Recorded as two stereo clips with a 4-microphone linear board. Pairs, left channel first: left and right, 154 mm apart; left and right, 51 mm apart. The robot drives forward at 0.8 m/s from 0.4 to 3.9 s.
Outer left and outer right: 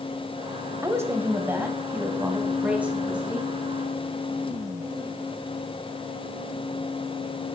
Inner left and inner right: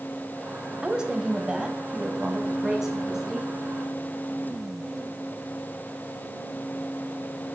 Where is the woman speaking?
20° right (ahead or behind), 1.3 m; by 3.5 s 5° right (ahead or behind), 3 m.